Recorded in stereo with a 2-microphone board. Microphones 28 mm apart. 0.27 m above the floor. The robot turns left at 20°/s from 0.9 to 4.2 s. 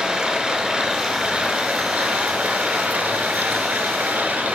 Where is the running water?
35° right, 0.8 m; by 4.5 s 100° right, 0.8 m.